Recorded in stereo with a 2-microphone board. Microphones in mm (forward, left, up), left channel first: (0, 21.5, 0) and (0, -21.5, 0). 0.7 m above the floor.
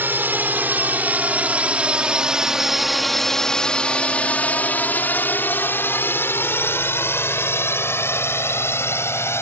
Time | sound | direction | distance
0.0 | a drone | 50° right (ahead or behind) | ?